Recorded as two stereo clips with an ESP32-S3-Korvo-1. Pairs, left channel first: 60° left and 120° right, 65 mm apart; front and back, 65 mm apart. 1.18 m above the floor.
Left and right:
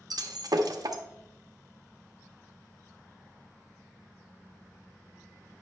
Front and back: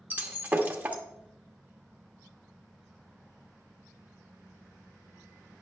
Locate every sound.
0.1 s breaking glass: 115° right, 1.1 m